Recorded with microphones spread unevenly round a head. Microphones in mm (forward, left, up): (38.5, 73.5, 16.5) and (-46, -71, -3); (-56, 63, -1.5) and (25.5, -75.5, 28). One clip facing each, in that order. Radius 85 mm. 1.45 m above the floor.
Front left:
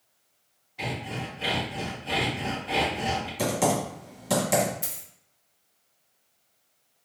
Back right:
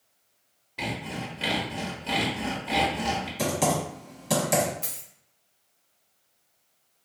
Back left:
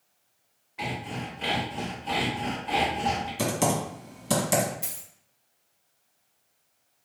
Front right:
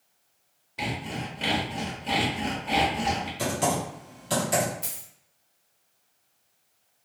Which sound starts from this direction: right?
Sawing, at 0.8 s.